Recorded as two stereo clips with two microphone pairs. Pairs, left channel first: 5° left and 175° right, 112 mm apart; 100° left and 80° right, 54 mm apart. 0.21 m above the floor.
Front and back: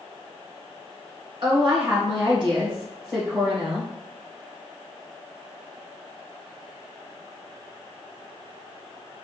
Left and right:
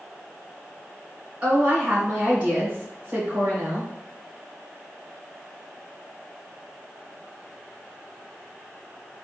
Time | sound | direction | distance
1.4 | a woman speaking | 140° right | 1.9 m